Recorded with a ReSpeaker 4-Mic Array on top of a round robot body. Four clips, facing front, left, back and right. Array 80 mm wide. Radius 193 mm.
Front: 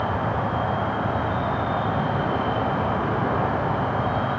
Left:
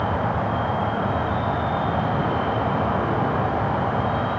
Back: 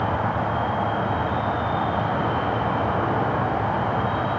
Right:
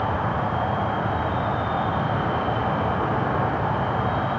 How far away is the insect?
About 1.9 m.